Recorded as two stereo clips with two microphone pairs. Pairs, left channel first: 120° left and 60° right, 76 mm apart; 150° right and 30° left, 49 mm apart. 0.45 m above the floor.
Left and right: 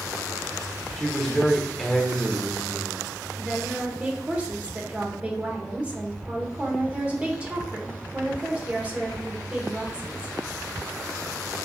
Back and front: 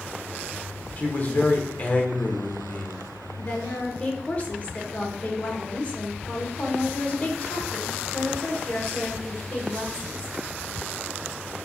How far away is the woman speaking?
About 0.9 m.